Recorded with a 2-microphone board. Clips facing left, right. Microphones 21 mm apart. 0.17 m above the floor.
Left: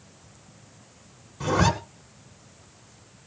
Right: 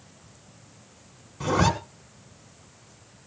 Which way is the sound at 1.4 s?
5° right (ahead or behind).